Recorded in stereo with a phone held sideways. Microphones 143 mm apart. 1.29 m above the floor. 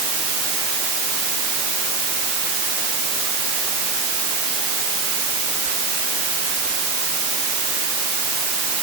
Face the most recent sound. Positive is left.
No sound to turn to.